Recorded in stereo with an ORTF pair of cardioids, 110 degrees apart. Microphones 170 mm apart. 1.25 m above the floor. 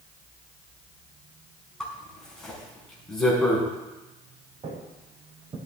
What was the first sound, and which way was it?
A zipper, 5° left.